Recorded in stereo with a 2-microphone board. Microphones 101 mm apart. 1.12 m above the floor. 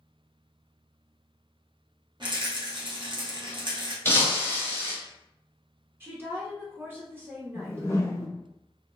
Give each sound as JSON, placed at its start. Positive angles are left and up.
{"t": 2.2, "sound": "a rattle", "side_deg": -50, "distance_m": 0.8}
{"t": 4.0, "sound": "breaking glass", "side_deg": 25, "distance_m": 1.0}
{"t": 6.0, "sound": "a woman speaking", "side_deg": -20, "distance_m": 0.7}
{"t": 7.5, "sound": "a whoosh", "side_deg": 25, "distance_m": 0.6}